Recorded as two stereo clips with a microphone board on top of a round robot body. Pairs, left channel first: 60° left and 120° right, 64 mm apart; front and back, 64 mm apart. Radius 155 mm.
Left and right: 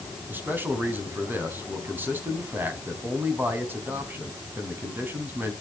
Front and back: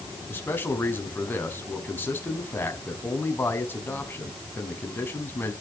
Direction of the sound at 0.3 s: 60° right.